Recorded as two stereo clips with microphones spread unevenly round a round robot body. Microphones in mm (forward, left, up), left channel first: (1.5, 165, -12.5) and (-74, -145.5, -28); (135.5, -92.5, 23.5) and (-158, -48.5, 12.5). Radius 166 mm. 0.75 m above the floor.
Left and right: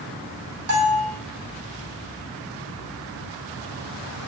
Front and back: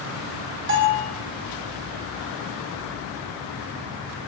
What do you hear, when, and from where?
0.7 s a bell: 140° right, 3.5 m